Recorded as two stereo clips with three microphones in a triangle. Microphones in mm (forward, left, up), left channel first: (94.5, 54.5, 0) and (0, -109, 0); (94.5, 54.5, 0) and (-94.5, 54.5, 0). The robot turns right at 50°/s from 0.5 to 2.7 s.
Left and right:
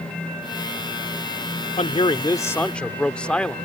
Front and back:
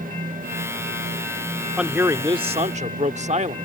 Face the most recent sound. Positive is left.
turn(degrees=145)